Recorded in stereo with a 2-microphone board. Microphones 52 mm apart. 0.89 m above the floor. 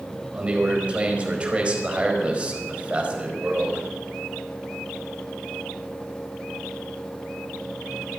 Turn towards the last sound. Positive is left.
turn(degrees=-25)  # may be behind; listen again after turning